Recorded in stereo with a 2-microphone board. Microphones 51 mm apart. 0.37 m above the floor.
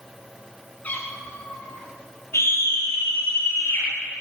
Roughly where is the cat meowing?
Left.